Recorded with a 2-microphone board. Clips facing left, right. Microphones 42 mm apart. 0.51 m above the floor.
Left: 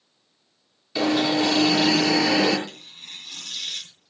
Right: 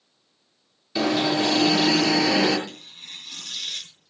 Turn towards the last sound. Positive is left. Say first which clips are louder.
# even
turn(degrees=-10)  # may be behind; listen again after turning